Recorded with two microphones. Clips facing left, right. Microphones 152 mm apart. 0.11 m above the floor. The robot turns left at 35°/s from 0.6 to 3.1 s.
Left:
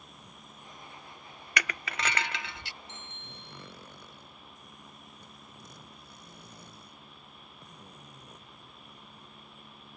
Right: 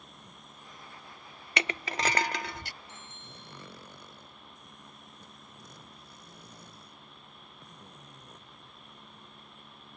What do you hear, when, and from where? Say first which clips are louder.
1.6 s crushing: right 3 dB; 35° right; by 2.7 s 75° right
2.9 s a bicycle bell: left 1 dB; 70° left (ahead or behind); by 3.7 s 65° left (ahead or behind)